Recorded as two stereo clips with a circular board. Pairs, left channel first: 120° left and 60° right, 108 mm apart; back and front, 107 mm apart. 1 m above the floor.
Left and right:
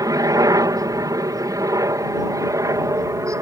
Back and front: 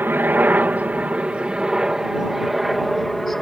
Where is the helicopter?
55° right; by 3.4 s 95° right.